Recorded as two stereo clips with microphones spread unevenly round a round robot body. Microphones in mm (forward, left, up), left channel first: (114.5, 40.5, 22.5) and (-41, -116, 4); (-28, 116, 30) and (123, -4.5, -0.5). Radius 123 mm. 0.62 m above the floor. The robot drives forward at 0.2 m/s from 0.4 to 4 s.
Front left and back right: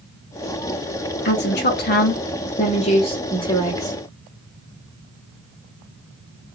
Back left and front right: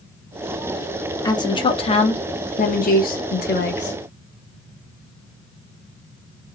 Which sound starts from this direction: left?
A woman speaking, at 1.2 s.